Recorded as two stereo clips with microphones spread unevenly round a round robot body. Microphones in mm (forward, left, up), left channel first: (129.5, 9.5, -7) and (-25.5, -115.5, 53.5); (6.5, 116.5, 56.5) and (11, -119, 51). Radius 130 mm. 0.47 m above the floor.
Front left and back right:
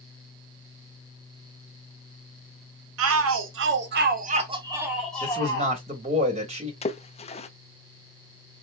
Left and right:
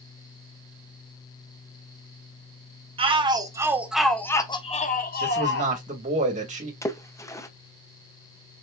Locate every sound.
3.0 s a shout: 150° right, 1.3 m; by 5.8 s 80° left, 1.1 m
5.2 s a man speaking: 80° right, 1.5 m
6.8 s a splash: 15° left, 0.7 m